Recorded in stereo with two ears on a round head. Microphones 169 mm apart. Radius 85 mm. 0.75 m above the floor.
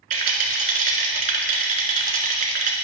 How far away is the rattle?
About 1.4 m.